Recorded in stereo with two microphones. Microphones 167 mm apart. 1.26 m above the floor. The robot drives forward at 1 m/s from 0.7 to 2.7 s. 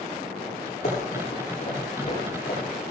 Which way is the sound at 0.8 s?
50° left (ahead or behind).